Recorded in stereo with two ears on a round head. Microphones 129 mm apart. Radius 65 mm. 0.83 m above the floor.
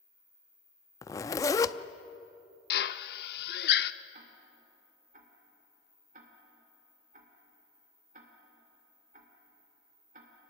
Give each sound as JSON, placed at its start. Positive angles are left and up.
{"t": 1.0, "sound": "a zipper", "side_deg": 20, "distance_m": 0.5}
{"t": 2.7, "sound": "a drill", "side_deg": 75, "distance_m": 0.7}
{"t": 4.1, "sound": "ticking", "side_deg": -55, "distance_m": 2.5}